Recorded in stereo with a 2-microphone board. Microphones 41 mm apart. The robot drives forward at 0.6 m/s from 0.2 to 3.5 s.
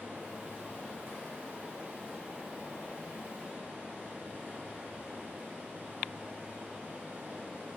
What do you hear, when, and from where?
0.0 s running water: 85° right, 3 m; by 7.8 s 55° right (ahead or behind), 3.5 m